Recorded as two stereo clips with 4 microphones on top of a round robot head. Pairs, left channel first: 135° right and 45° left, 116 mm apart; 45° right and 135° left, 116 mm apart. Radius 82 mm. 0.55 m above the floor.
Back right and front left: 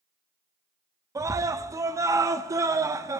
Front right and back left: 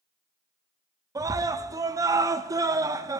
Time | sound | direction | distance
1.1 | a scream | 90° left | 0.8 m